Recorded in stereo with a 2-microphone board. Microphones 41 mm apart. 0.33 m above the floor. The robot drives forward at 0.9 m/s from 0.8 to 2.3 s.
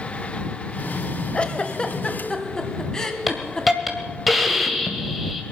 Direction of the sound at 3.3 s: Centre (ahead or behind).